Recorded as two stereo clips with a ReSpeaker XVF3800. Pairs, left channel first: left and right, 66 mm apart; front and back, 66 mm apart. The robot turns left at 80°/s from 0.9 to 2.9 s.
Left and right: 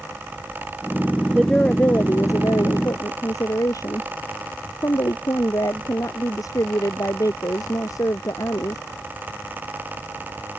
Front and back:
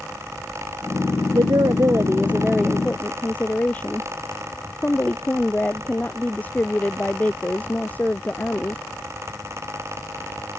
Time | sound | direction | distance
1.3 | a woman speaking | 170° right | ?